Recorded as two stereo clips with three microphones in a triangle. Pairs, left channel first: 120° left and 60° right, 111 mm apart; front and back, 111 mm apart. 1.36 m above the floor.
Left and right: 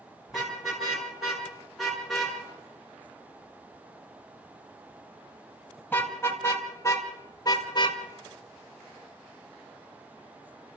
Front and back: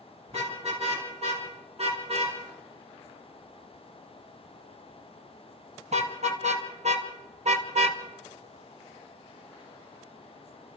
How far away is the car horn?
About 9 m.